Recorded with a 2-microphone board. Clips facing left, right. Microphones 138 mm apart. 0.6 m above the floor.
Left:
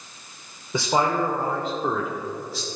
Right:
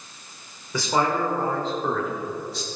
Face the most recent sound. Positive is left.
turn(degrees=0)  # may be behind; listen again after turning